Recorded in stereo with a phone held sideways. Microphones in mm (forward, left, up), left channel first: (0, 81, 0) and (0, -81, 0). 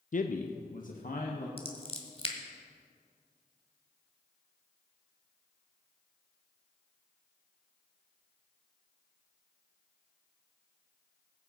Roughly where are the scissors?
Left.